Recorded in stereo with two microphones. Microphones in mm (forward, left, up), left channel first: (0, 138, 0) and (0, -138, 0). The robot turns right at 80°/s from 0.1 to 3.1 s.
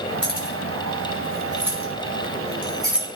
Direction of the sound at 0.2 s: 40° left (ahead or behind).